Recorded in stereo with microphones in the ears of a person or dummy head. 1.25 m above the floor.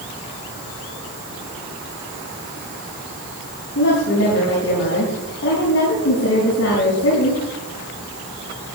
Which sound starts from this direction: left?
A woman speaking, at 3.8 s.